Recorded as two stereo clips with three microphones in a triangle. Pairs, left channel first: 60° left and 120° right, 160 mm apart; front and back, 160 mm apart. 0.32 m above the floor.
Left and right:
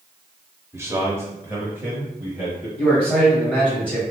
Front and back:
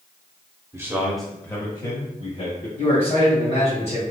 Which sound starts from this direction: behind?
A man speaking, at 0.7 s.